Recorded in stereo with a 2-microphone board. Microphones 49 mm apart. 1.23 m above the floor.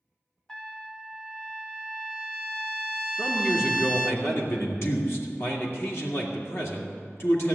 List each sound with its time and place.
0.5 s a trumpet: 15° left (ahead or behind), 0.6 m
3.2 s a man speaking: 55° left (ahead or behind), 2.5 m